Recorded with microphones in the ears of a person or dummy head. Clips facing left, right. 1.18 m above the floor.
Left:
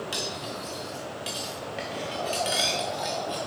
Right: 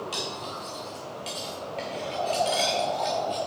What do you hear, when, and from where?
0.1 s cutlery clinking: 15° left (ahead or behind), 1.2 m